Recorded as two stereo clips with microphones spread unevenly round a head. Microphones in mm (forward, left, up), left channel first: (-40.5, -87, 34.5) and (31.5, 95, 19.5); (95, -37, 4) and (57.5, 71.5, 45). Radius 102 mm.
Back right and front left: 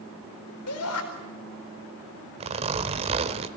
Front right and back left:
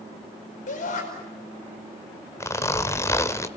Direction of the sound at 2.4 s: 5° left.